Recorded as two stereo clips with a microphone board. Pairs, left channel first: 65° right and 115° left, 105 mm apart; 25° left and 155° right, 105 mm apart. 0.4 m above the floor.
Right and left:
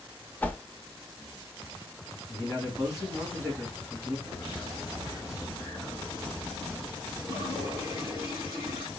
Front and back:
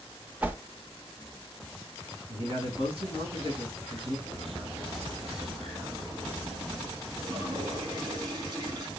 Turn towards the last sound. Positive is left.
turn(degrees=-105)